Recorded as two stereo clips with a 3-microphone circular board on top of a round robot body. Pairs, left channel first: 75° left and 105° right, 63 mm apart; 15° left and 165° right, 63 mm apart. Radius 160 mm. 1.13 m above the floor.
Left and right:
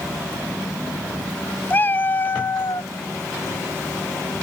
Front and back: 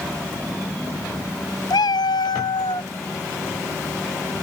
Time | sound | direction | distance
1.7 | a cat meowing | 15° left | ?